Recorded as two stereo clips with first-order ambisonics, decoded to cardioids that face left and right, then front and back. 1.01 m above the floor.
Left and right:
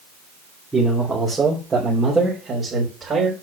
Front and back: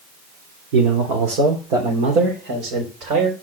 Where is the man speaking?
170° right, 2.5 m; by 3.3 s 160° right, 4 m.